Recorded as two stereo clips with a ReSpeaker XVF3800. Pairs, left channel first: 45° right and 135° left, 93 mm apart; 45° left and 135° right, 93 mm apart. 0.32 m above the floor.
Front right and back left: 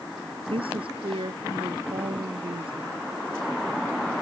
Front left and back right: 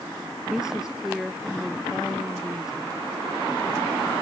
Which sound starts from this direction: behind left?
A woman speaking, at 0.5 s.